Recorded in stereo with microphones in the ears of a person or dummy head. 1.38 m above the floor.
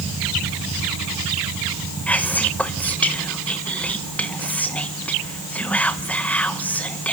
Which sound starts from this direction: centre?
Whispering, at 2.1 s.